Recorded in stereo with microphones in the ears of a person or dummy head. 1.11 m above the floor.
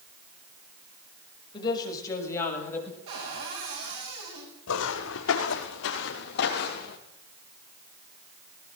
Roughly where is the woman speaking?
Left.